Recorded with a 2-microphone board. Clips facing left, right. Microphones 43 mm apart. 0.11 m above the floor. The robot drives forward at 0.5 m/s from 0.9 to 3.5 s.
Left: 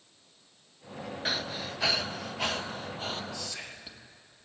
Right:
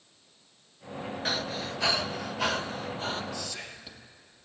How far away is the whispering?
About 3 m.